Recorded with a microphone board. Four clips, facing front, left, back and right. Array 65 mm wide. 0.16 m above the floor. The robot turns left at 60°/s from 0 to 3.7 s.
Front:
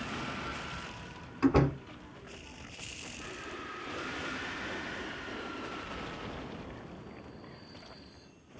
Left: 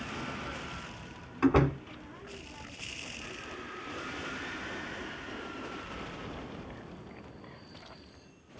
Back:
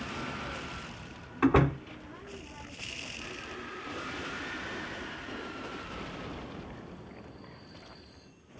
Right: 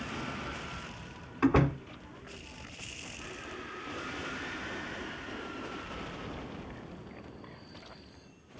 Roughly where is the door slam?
Behind.